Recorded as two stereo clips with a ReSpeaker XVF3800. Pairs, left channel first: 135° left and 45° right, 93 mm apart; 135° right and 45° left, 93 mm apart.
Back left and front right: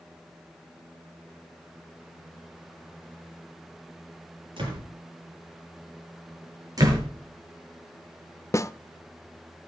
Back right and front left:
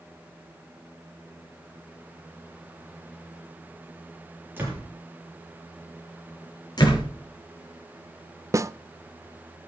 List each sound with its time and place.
4.6 s a door slam: 20° right, 10 m
6.8 s a door slam: 95° right, 6 m
8.5 s a snare drum: 90° left, 0.5 m